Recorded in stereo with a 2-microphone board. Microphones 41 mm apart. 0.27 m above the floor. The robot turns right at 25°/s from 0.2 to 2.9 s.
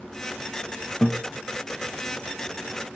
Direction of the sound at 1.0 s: 20° left (ahead or behind).